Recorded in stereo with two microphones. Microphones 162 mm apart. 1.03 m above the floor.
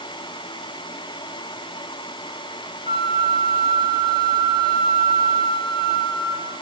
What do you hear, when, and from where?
2.9 s a flute: 65° left (ahead or behind), 2.5 m